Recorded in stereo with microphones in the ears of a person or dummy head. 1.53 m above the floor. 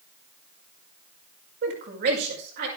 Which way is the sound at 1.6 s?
55° right (ahead or behind).